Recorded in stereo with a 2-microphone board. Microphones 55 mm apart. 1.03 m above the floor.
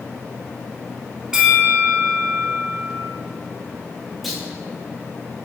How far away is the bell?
About 1.1 m.